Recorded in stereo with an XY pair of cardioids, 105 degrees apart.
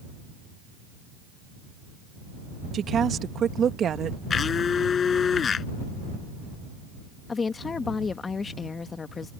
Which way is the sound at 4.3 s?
45° left.